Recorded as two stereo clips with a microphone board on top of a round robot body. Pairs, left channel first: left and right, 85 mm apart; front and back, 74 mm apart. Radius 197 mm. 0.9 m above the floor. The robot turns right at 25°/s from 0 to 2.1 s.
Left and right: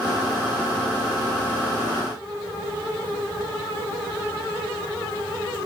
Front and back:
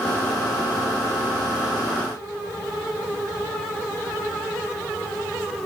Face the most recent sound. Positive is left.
No sound to turn to.